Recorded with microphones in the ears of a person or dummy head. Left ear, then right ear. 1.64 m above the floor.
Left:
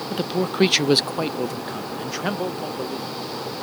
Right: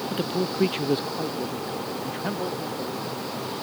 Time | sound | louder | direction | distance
0.1 | a man speaking | left 4 dB | 5° left (ahead or behind) | ?